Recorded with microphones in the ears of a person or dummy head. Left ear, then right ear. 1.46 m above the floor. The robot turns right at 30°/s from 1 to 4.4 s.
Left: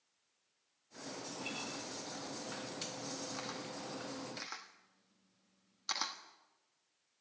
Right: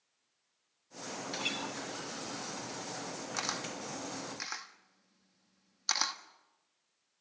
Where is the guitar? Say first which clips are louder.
Right 8 dB; 75° right (ahead or behind), 2 m; by 1.8 s 85° right, 2 m.